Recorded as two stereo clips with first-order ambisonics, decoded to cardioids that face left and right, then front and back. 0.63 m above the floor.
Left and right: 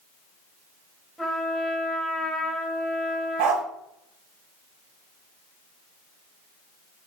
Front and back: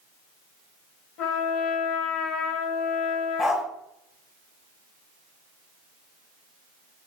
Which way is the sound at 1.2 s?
5° left.